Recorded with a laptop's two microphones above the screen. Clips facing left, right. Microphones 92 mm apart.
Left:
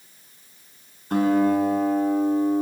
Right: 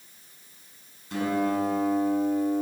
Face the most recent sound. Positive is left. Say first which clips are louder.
# left 7 dB
turn(degrees=50)  # may be behind; listen again after turning